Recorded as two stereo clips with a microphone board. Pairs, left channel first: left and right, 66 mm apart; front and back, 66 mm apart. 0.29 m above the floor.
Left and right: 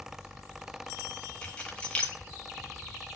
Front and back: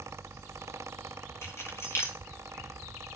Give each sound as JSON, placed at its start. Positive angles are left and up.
{"t": 1.4, "sound": "keys jangling", "azimuth_deg": 20, "distance_m": 1.3}